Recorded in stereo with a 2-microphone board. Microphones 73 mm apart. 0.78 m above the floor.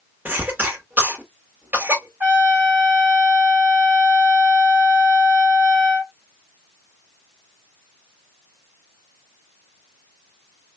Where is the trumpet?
30° right (ahead or behind), 2 m.